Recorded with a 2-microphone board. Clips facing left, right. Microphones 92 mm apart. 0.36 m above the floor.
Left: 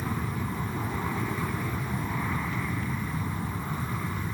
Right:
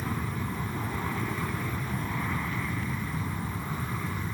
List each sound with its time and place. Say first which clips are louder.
0.0 s an aircraft: left 1 dB; 5° left (ahead or behind)